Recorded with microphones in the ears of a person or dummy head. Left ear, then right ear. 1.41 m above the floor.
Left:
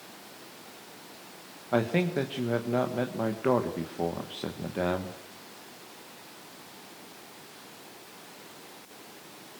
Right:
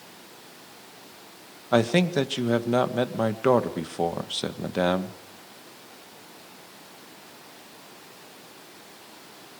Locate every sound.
1.7 s a man speaking: 85° right, 1.4 m